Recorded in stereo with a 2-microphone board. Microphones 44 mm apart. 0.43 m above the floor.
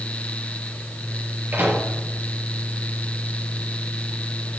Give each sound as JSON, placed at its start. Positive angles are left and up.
{"t": 1.5, "sound": "a microwave", "side_deg": -50, "distance_m": 7.0}